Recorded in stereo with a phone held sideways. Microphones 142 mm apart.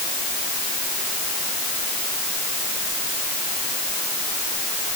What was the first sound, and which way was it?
Only background noise.